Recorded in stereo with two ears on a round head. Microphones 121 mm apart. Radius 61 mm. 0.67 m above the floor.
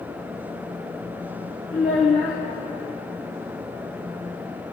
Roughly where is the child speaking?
Left.